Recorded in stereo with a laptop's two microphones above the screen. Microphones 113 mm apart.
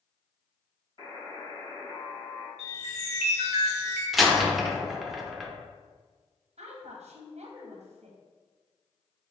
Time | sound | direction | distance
1.0 | a buzzer | 40° left (ahead or behind) | 1.3 m
2.6 | a chime | 70° left (ahead or behind) | 1.0 m
4.1 | a door slam | centre (ahead or behind) | 0.6 m
6.6 | a woman speaking | 65° right (ahead or behind) | 0.9 m